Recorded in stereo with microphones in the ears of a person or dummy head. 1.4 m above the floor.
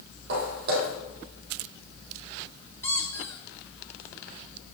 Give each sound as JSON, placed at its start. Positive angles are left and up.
{"t": 0.3, "sound": "footsteps", "side_deg": -55, "distance_m": 2.5}
{"t": 2.8, "sound": "a squeak", "side_deg": 15, "distance_m": 1.5}